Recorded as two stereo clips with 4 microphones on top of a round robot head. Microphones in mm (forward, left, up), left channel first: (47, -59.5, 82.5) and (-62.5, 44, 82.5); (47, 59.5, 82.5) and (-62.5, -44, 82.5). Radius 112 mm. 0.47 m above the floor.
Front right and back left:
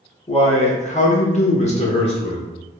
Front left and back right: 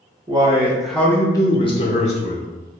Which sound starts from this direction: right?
A man speaking, at 0.3 s.